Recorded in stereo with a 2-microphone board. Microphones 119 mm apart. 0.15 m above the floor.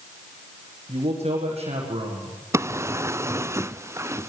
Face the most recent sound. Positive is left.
turn(degrees=-25)  # may be behind; listen again after turning